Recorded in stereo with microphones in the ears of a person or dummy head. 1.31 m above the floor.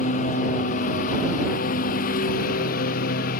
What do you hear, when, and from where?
0.0 s a lawn mower: 45° left (ahead or behind); by 3.4 s 50° left (ahead or behind)